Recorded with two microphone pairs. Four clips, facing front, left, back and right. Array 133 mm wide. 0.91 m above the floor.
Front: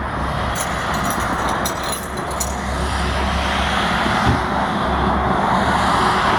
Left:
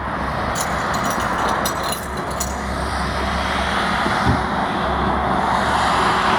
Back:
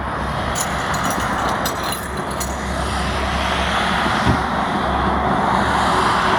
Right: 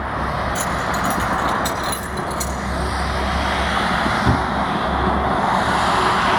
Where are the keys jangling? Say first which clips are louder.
Even, even; 145° left, 4 m; by 2.6 s straight behind, 3.5 m.